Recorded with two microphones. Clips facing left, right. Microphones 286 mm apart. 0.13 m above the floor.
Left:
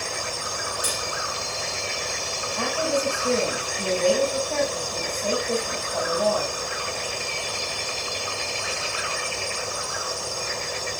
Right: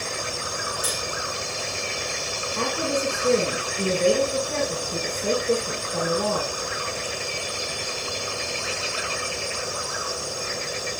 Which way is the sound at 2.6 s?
75° right (ahead or behind).